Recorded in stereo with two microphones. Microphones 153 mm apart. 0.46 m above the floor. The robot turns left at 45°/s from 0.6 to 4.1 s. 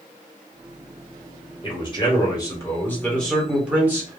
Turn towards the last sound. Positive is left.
turn(degrees=-30)